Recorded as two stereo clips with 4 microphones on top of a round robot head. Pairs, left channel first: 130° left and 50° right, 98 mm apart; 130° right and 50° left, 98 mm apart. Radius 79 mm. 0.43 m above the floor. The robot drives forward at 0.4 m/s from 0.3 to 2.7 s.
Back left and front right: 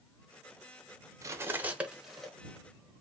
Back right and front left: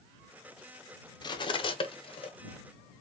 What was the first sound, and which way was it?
Cutlery clinking, 100° right.